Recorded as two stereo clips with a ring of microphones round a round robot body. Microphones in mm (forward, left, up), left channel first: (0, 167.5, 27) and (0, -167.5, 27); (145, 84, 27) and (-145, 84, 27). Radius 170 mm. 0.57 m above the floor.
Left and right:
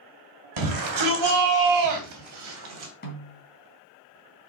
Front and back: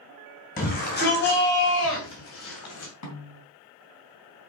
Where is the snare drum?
25° left, 3 m.